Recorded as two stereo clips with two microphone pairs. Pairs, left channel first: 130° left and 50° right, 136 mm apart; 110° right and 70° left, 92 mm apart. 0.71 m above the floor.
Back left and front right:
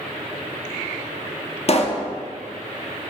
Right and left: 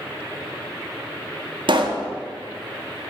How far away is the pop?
About 0.5 m.